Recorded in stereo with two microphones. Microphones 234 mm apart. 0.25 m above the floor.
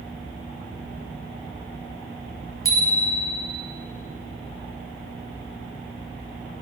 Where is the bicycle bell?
60° left (ahead or behind), 3 m.